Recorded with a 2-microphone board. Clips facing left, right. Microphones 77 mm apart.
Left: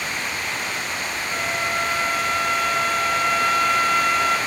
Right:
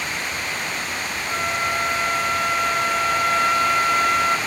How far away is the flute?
About 5.5 m.